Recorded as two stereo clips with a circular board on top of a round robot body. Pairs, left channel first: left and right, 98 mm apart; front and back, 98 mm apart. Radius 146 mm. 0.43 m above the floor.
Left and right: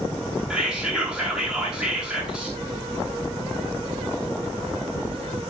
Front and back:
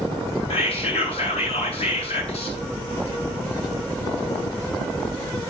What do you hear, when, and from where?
0.5 s whispering: 10° right, 7.5 m